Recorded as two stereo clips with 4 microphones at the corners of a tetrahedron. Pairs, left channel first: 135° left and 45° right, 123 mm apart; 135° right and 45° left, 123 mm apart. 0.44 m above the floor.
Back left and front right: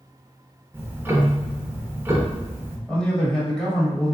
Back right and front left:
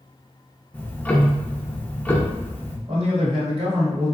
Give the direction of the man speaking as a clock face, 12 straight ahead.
10 o'clock.